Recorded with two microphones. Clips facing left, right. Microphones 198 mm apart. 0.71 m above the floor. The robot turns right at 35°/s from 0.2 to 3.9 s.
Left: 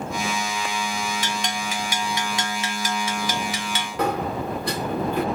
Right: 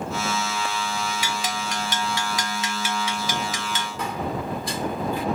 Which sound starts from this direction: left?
A sliding door, at 4.0 s.